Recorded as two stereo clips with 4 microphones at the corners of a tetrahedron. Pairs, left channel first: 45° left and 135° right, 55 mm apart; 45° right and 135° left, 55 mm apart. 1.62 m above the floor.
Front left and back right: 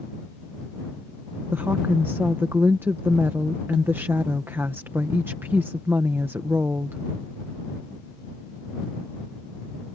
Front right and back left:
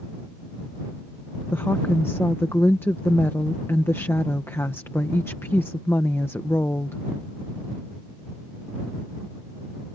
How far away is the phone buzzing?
No phone buzzing in this recording.